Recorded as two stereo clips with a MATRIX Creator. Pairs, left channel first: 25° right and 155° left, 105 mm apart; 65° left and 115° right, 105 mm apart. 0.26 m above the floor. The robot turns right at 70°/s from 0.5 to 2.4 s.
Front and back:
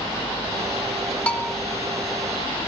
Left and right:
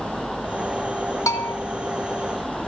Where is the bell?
45° left, 0.9 m; by 1.5 s 65° left, 0.9 m.